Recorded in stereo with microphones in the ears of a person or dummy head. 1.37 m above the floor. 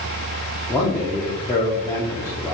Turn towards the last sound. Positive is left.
turn(degrees=15)  # may be behind; listen again after turning